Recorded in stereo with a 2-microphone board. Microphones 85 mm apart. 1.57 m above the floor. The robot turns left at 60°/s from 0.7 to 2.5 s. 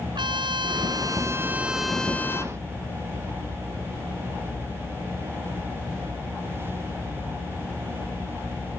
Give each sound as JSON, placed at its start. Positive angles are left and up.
{"t": 0.1, "sound": "a trumpet", "azimuth_deg": -110}